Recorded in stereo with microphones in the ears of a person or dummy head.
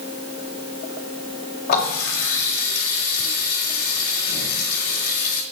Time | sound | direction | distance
1.7 | a running tap | 55° left (ahead or behind) | 2.5 m